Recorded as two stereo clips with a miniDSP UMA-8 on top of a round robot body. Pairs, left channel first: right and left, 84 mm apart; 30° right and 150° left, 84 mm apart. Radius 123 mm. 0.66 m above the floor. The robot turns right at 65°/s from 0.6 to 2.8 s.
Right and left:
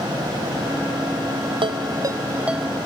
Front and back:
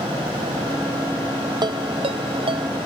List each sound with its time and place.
1.6 s a ringtone: 110° left; by 2.7 s straight behind